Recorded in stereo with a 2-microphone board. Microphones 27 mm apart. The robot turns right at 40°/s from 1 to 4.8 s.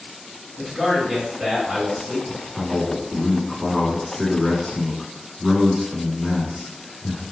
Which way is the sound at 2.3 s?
20° left (ahead or behind).